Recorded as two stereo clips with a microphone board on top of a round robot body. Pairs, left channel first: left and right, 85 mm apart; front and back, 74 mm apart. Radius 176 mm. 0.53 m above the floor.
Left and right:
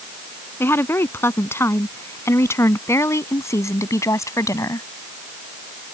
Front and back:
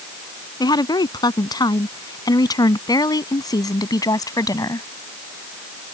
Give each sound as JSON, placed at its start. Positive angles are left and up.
{"t": 0.6, "sound": "a woman speaking", "azimuth_deg": 30}